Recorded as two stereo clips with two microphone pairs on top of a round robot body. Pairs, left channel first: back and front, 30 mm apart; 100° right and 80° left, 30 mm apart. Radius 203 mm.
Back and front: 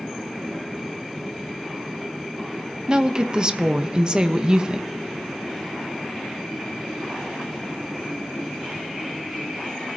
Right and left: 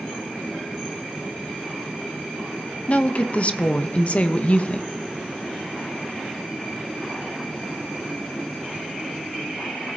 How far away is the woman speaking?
About 1.0 m.